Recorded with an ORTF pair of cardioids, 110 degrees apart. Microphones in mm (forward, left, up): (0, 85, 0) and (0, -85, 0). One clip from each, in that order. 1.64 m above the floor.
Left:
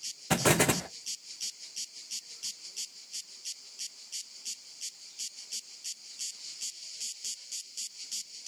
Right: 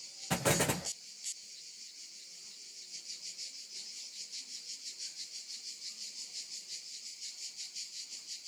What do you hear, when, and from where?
0.3 s an explosion: 30° left, 0.6 m